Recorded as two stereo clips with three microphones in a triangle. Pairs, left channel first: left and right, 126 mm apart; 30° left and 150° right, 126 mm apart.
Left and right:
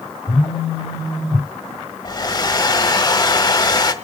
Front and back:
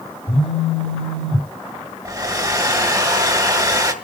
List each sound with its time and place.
0.3 s a phone buzzing: 40° left, 3 m
2.0 s a hair dryer: 150° left, 1.5 m